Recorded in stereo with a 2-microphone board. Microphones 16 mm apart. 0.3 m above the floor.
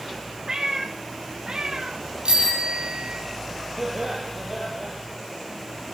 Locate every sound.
0.5 s a cat meowing: 40° right (ahead or behind), 4 m; by 2.0 s 50° right (ahead or behind), 4.5 m
2.2 s a bicycle bell: 75° right (ahead or behind), 6 m
3.8 s laughter: 35° right (ahead or behind), 9 m